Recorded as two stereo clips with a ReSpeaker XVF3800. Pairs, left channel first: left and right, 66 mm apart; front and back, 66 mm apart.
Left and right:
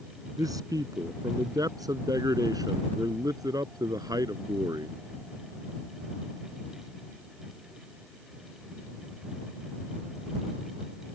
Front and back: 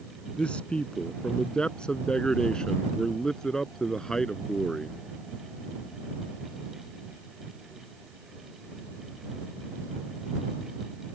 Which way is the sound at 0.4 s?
70° right.